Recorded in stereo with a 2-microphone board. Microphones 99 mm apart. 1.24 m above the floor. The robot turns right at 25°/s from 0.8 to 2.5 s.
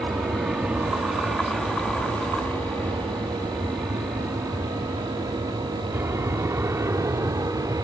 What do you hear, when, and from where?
0.0 s an aircraft: centre (ahead or behind); by 7.8 s 35° right (ahead or behind)